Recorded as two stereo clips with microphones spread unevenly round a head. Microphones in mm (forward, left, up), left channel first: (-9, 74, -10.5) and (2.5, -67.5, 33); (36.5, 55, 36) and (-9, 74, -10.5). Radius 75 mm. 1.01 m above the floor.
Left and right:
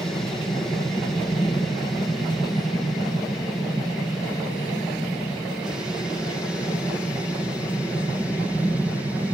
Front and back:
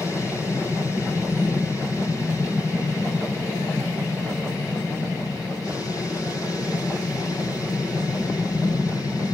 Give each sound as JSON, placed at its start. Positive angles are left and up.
{"t": 0.0, "sound": "an aircraft", "azimuth_deg": 45}